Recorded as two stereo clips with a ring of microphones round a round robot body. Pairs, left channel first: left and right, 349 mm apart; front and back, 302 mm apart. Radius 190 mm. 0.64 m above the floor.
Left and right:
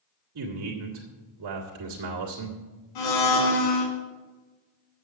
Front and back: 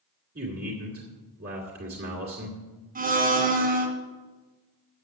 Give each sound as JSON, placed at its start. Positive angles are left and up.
{"t": 0.3, "sound": "a man speaking", "azimuth_deg": -120, "distance_m": 2.0}
{"t": 3.0, "sound": "a blender", "azimuth_deg": 115, "distance_m": 2.5}